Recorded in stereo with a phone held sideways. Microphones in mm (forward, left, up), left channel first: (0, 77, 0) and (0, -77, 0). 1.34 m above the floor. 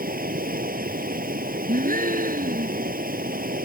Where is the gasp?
65° right (ahead or behind).